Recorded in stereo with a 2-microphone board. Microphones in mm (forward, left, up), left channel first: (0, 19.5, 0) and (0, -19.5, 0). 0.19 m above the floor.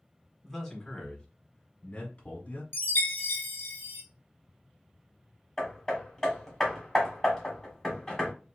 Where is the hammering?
10° left (ahead or behind), 1.5 m.